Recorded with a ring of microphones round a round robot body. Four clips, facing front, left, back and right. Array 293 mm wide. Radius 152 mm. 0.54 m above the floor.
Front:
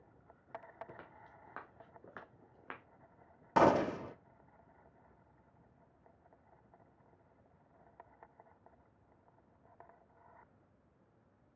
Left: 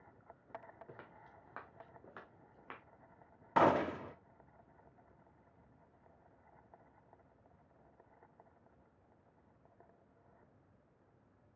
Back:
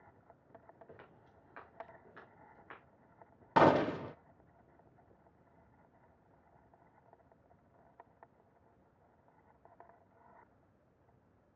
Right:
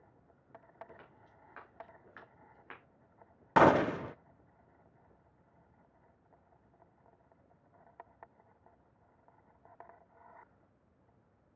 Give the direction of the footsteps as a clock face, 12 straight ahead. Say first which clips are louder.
Left 1 dB, front 3 dB; 11 o'clock.